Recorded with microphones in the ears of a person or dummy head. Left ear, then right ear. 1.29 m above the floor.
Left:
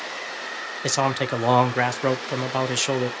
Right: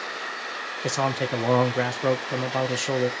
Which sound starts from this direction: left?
A man speaking, at 0.8 s.